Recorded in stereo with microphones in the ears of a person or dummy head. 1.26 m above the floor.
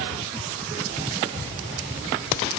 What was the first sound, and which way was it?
Only background noise.